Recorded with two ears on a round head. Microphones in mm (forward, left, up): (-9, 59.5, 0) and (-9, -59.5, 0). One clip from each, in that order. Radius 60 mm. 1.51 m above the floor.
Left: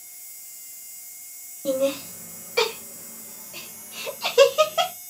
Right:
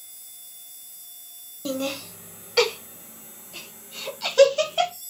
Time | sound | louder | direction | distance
1.6 | laughter | left 6 dB | 65° right (ahead or behind) | 0.9 m